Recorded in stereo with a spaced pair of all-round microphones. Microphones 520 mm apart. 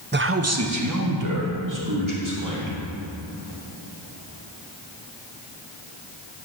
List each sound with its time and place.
0.1 s a man speaking: 20° right (ahead or behind), 0.5 m; by 2.8 s 40° right (ahead or behind), 3 m